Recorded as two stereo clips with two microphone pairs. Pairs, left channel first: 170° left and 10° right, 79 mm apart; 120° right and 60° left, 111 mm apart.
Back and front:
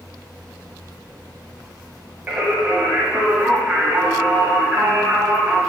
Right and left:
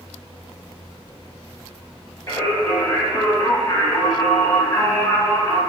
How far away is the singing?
About 0.6 m.